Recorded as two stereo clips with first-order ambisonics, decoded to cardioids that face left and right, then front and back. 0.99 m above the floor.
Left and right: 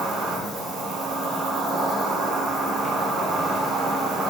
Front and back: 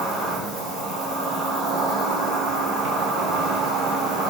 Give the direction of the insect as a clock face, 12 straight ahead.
5 o'clock.